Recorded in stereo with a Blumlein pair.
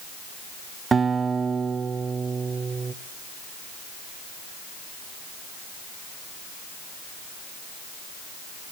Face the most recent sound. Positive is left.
turn(degrees=-20)